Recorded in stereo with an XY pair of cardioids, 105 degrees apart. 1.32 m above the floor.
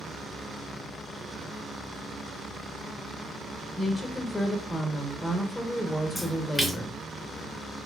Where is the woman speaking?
25° left, 0.8 m.